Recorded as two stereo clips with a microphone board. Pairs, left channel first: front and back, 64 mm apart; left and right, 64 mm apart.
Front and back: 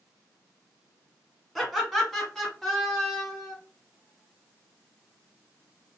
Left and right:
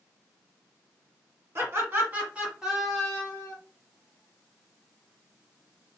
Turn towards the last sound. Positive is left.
turn(degrees=70)